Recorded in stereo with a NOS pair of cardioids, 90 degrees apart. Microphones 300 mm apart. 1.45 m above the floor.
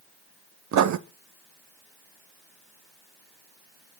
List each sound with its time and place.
0.7 s writing: 70° right, 1.7 m